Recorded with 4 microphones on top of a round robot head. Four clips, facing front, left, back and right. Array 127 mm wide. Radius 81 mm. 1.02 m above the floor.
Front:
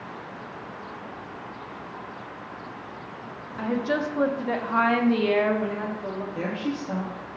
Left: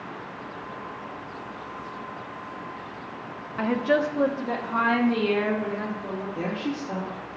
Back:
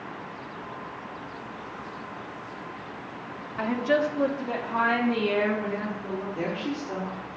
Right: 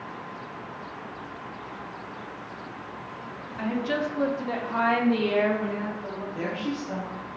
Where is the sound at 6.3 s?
10° left, 2 m.